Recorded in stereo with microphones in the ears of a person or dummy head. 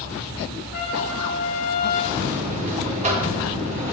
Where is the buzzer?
35° right (ahead or behind), 1.7 m.